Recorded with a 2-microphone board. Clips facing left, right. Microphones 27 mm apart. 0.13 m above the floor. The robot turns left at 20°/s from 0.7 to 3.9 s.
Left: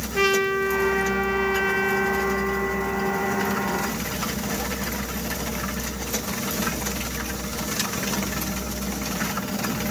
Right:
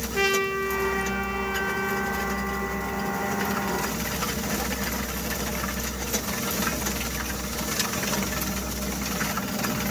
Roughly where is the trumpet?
Behind.